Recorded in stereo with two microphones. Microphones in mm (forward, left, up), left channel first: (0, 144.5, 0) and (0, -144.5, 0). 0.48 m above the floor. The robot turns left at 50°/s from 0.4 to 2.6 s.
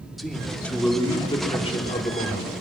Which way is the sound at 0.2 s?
Centre (ahead or behind).